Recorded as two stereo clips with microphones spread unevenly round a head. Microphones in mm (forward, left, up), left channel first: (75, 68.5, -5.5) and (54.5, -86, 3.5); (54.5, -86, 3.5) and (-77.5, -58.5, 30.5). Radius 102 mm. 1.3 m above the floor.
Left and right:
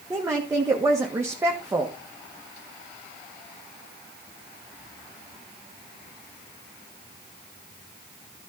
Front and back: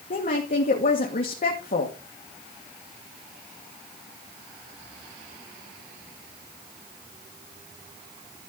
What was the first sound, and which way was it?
A woman speaking, 25° right.